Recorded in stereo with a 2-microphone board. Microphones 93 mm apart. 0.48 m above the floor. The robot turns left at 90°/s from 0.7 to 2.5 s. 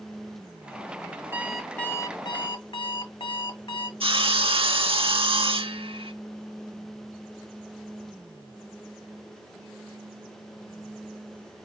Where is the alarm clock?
155° right, 1.8 m; by 3.9 s 100° left, 1.8 m.